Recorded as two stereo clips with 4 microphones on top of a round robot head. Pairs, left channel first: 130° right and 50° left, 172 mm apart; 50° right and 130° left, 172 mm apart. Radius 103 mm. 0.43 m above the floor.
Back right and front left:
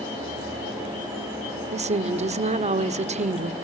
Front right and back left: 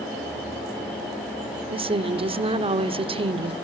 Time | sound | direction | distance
1.7 | a woman speaking | 85° left | 1.4 m